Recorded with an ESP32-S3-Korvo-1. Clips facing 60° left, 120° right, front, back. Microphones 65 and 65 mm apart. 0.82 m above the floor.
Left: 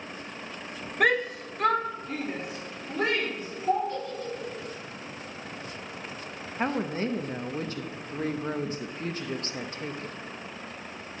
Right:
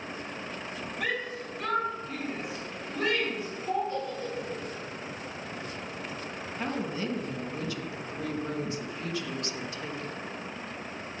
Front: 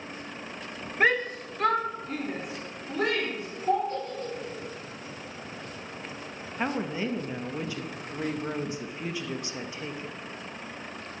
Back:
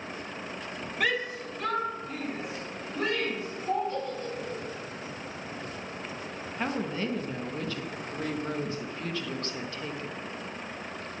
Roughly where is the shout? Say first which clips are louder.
Left 9 dB, front 5 dB; ahead left.